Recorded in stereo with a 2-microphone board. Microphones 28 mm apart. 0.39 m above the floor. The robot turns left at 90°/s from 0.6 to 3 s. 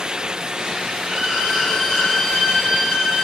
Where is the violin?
140° right, 0.9 m; by 3.3 s 45° left, 0.9 m.